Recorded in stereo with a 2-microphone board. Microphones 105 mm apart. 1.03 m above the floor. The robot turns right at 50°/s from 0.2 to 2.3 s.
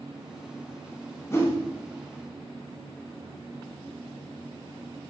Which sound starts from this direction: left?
A whoosh, at 1.3 s.